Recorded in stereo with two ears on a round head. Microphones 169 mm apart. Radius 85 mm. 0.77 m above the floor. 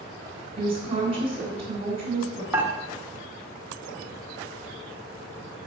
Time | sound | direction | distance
0.6 | a woman speaking | 30° right (ahead or behind) | 3.5 m
2.5 | dishes clattering | 15° right (ahead or behind) | 1.3 m